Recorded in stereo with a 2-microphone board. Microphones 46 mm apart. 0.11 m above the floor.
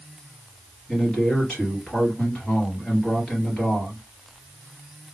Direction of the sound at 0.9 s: 15° left (ahead or behind).